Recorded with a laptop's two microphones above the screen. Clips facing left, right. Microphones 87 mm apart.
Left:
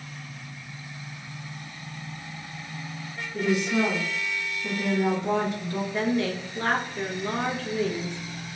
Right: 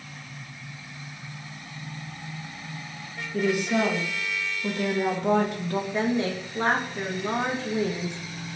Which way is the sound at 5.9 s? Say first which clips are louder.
Left 1 dB; 25° right (ahead or behind).